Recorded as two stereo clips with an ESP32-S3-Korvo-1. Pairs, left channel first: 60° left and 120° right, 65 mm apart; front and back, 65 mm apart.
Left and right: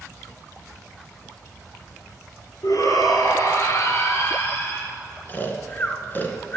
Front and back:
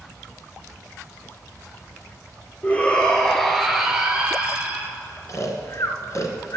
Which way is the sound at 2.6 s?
60° left.